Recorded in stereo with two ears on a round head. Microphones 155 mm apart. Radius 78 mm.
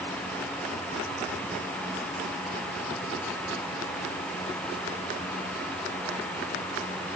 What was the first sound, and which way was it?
Only background noise.